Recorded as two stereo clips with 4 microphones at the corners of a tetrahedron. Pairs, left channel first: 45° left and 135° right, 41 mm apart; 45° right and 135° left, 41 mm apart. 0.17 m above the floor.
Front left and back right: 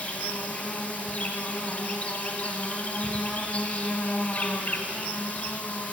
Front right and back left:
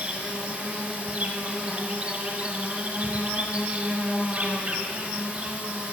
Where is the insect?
85° left, 1.7 m.